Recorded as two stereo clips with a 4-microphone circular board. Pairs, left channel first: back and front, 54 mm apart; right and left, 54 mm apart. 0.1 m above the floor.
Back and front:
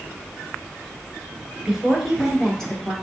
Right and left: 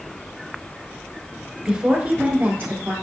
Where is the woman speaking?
70° left, 1.2 m; by 2.9 s 110° left, 1.7 m.